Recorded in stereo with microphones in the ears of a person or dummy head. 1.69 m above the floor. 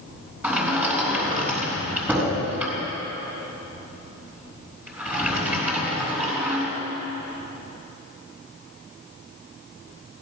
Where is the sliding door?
15° right (ahead or behind), 4.5 m.